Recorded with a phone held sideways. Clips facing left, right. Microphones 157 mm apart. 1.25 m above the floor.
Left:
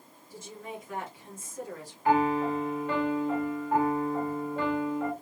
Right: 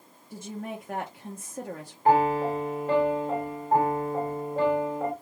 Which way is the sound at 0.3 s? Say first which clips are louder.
Right 5 dB; 55° right (ahead or behind).